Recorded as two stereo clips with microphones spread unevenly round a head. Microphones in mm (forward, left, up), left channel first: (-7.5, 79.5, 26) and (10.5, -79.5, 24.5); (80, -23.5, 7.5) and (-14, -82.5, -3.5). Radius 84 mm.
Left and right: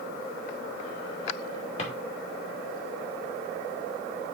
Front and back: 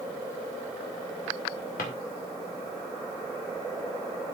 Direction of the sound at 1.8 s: 45° left.